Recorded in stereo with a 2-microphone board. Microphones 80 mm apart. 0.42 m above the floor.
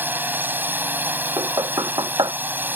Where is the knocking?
55° right (ahead or behind).